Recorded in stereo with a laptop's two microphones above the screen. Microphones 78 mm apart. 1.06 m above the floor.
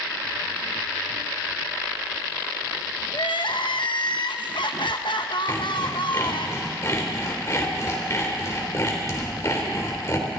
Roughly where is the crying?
Left.